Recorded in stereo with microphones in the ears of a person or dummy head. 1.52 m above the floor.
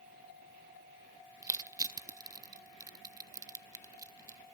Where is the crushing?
20° right (ahead or behind), 0.8 m.